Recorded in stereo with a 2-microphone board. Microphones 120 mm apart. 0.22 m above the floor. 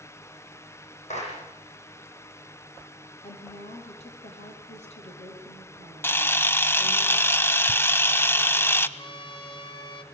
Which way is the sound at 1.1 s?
75° left (ahead or behind).